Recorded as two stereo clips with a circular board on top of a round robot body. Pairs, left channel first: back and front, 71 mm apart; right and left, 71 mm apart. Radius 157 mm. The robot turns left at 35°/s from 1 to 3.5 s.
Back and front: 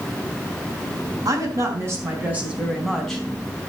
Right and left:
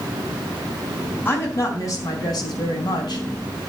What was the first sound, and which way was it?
A woman speaking, 30° right.